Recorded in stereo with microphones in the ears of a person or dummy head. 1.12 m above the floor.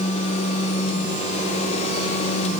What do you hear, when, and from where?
Only background noise.